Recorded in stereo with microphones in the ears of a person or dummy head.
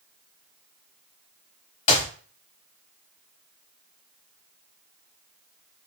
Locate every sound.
1.9 s a clap: 40° left (ahead or behind), 0.8 m